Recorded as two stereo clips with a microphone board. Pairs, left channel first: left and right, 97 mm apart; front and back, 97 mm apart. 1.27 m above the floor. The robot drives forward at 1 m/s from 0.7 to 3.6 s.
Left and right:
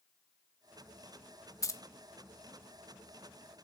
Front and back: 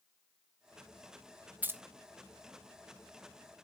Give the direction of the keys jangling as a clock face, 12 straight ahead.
8 o'clock.